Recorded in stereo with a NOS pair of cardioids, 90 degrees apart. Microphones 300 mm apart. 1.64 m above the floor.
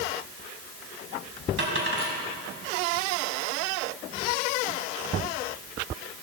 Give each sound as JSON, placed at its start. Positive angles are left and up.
{"t": 1.6, "sound": "a dropped coin", "azimuth_deg": -45, "distance_m": 4.5}